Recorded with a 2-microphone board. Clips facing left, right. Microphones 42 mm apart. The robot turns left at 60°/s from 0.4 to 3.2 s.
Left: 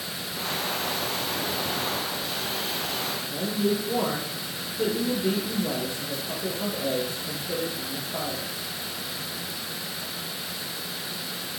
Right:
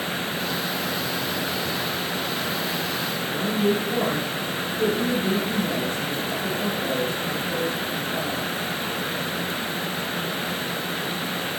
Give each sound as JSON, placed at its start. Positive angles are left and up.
{"t": 3.3, "sound": "a woman speaking", "side_deg": 15, "distance_m": 3.0}